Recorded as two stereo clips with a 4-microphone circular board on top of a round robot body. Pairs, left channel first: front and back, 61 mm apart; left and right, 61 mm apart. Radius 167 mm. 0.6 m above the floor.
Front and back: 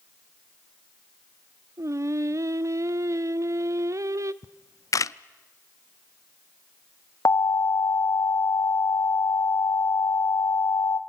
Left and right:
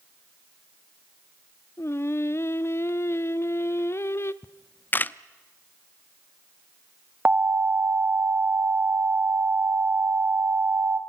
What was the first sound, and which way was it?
Singing, 140° left.